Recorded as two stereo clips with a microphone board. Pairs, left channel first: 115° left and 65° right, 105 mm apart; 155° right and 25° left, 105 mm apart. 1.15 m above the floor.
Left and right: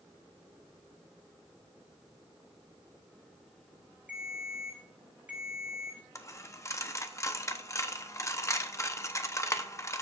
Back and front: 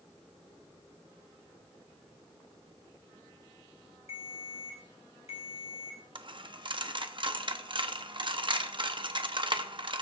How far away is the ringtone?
About 3.5 m.